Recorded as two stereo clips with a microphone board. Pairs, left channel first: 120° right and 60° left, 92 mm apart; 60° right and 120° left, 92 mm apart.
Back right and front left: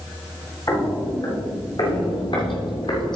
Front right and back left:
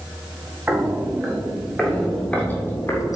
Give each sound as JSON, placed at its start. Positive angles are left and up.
{"t": 0.7, "sound": "footsteps", "azimuth_deg": -165, "distance_m": 2.5}